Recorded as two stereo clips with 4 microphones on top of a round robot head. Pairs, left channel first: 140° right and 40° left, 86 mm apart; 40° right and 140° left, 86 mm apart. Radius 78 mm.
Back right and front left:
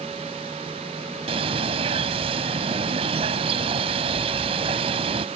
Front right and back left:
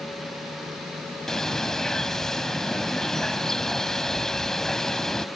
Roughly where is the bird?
Ahead left.